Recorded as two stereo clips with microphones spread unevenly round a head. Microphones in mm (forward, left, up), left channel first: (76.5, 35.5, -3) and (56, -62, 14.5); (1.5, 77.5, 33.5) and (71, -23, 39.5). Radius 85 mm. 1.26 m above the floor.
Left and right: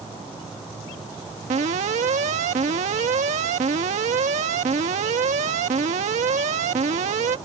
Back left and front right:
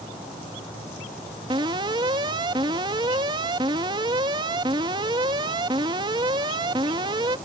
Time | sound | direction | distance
1.5 | an alarm | 115° right | ?